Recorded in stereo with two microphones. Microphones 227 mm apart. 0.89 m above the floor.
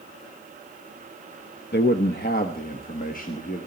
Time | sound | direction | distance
1.7 | a man speaking | 50° left (ahead or behind) | 0.6 m